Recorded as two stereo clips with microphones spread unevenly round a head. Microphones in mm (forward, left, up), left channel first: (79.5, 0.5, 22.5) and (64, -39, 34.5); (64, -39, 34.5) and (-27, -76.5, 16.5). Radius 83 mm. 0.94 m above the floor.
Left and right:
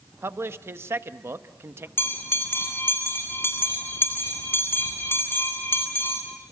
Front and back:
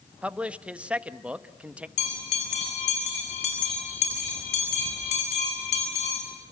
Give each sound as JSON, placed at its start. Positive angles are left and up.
{"t": 0.2, "sound": "a man speaking", "azimuth_deg": -85, "distance_m": 1.2}
{"t": 2.0, "sound": "a bell", "azimuth_deg": 40, "distance_m": 8.0}